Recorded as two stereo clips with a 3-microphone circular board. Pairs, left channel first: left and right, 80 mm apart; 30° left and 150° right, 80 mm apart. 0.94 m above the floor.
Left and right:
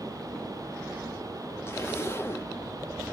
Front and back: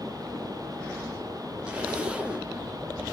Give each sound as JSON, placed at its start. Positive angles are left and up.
{"t": 1.7, "sound": "a zipper", "azimuth_deg": 140, "distance_m": 0.5}